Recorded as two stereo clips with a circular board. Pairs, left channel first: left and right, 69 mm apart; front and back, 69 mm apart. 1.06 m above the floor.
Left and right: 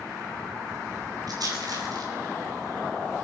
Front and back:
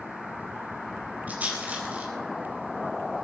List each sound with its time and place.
1.3 s a rattle: 110° right, 4.5 m